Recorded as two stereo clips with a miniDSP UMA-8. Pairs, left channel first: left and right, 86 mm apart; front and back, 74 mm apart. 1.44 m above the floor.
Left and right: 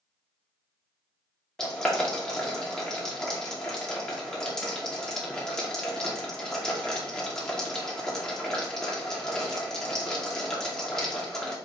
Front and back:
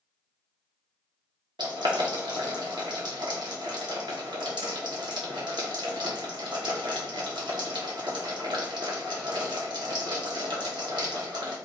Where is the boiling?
175° left, 1.1 m.